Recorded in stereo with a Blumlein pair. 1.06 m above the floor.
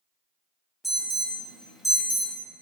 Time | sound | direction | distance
0.8 | an alarm | straight ahead | 1.8 m